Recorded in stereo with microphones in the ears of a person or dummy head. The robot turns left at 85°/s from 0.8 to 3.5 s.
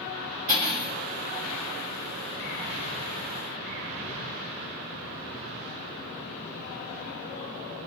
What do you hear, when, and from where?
0.5 s cutlery clinking: 45° right (ahead or behind), 1.3 m; by 0.9 s 50° right (ahead or behind), 1.3 m